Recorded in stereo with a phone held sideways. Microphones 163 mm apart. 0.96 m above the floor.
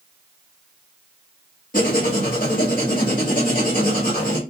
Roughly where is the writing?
Left.